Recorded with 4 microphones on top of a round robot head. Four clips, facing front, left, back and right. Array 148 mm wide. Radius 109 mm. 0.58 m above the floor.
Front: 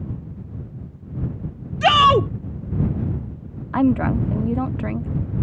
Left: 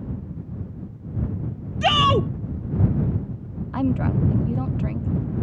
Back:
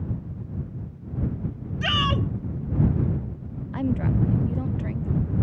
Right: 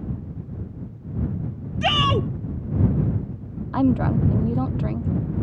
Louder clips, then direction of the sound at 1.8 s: Left 3 dB, front 12 dB; 10° left.